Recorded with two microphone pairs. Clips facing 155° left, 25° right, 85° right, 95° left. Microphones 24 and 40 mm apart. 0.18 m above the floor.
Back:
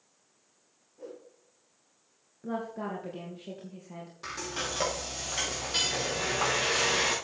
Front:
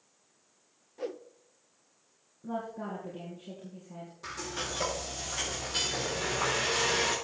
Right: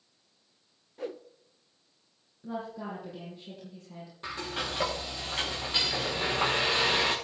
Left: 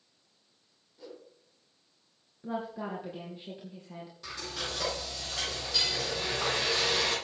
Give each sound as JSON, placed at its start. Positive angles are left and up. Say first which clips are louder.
{"t": 1.0, "sound": "a whoosh", "louder": "front 7 dB, right 10 dB", "azimuth_deg": -55, "distance_m": 0.9}
{"t": 2.4, "sound": "a woman speaking", "louder": "back 2 dB, left 1 dB", "azimuth_deg": 150, "distance_m": 3.5}
{"t": 4.2, "sound": "frying", "louder": "back 2 dB, right 4 dB", "azimuth_deg": -145, "distance_m": 6.0}